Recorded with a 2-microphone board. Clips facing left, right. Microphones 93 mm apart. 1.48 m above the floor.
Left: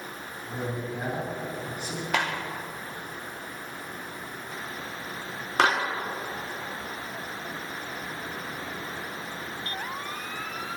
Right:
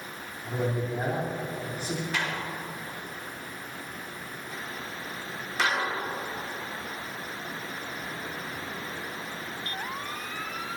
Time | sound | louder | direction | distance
0.4 | a man speaking | right 4 dB | 40° right (ahead or behind) | 4.5 m
2.1 | a clap | left 3 dB | 75° left (ahead or behind) | 2.5 m